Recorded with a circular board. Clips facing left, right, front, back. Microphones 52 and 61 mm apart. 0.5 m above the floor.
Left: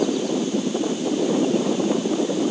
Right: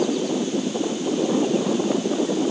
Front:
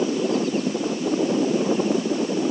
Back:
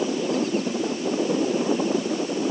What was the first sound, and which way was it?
Only background noise.